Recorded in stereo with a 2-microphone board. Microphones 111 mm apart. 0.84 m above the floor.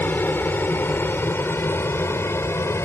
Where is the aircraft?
15° left (ahead or behind); by 2.9 s 25° left (ahead or behind).